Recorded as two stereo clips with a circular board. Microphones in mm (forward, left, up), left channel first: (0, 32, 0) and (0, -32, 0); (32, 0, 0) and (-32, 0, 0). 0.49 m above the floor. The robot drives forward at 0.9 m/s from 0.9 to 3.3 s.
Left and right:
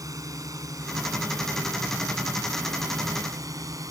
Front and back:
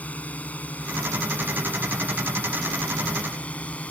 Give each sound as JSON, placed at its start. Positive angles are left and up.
{"t": 0.0, "sound": "a drone", "azimuth_deg": -65}